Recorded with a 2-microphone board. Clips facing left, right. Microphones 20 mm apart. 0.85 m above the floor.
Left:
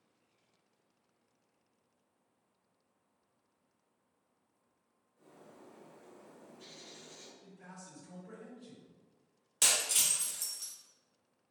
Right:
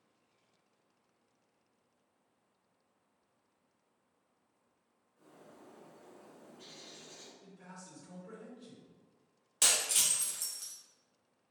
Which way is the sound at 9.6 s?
5° right (ahead or behind).